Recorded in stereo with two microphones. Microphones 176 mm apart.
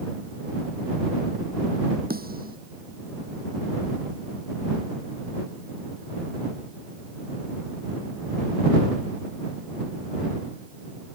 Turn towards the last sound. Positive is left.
turn(degrees=-60)  # may be behind; listen again after turning